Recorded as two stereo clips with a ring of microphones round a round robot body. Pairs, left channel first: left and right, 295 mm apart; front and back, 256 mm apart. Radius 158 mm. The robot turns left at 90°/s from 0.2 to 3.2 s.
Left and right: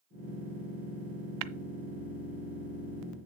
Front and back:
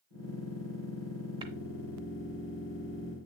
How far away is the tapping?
About 0.5 m.